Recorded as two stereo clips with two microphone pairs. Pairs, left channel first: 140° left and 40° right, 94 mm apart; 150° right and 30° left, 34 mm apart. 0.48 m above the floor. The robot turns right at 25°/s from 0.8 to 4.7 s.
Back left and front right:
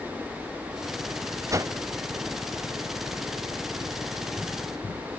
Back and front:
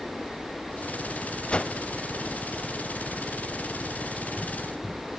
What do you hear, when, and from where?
1.5 s a whoosh: 95° right, 0.5 m; by 1.7 s 85° right, 0.5 m